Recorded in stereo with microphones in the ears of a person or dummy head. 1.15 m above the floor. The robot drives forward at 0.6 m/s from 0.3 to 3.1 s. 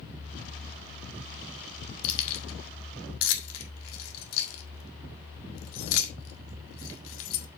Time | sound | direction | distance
2.0 | keys jangling | 75° left (ahead or behind) | 1.7 m